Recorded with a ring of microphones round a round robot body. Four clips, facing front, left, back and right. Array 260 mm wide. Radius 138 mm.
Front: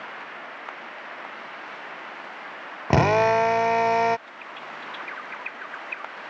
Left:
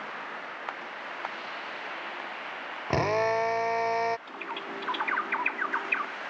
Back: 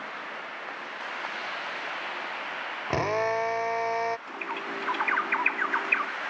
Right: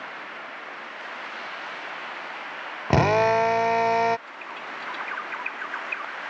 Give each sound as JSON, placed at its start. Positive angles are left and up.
{"t": 2.9, "sound": "a drill", "azimuth_deg": -40}
{"t": 4.3, "sound": "a bird", "azimuth_deg": 150}